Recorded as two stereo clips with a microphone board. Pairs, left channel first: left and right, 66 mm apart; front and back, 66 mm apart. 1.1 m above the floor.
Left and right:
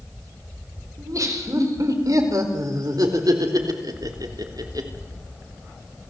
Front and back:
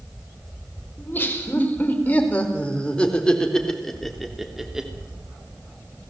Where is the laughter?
60° right, 5 m; by 4.9 s 100° right, 3 m.